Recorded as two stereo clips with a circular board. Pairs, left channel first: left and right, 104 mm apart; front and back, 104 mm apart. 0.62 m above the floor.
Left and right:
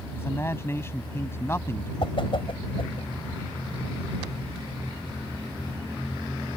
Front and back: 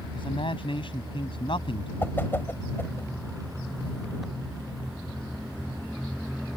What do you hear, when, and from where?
0.1 s a man speaking: 25° left
2.0 s a whoosh: 65° left